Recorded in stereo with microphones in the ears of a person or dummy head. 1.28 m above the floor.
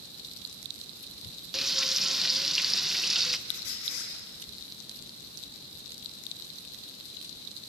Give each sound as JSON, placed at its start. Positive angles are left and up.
{"t": 1.5, "sound": "frying", "side_deg": 0, "distance_m": 1.0}
{"t": 3.5, "sound": "a squeak", "side_deg": 65, "distance_m": 3.5}